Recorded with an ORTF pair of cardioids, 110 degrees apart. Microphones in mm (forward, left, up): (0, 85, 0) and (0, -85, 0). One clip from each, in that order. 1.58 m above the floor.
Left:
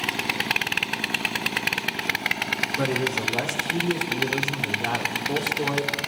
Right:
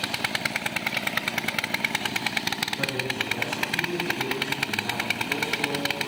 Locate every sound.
2.8 s a man speaking: 60° left, 3 m